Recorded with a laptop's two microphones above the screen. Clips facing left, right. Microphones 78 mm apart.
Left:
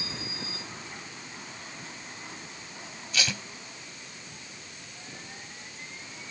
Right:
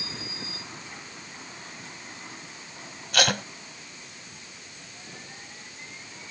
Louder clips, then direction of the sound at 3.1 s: Right 8 dB; 60° right (ahead or behind).